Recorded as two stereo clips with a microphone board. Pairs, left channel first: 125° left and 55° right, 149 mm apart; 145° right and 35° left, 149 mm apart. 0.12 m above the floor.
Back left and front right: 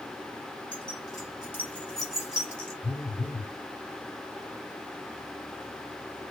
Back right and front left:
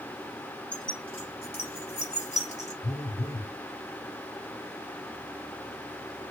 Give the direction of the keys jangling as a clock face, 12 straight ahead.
6 o'clock.